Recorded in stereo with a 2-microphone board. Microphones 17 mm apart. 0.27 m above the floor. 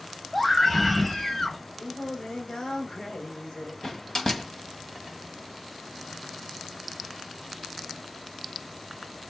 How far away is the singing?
About 5 m.